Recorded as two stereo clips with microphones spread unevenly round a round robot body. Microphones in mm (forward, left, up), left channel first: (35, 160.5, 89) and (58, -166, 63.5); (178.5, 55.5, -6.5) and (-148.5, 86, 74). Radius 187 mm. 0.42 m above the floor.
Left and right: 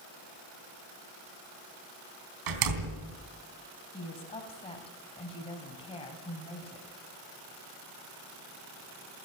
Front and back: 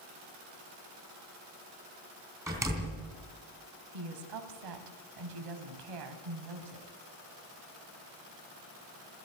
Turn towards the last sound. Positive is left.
turn(degrees=170)